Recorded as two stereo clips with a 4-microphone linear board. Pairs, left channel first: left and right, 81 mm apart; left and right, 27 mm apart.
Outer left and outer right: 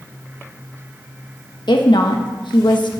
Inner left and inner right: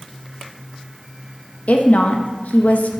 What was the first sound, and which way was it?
A woman speaking, 65° left (ahead or behind).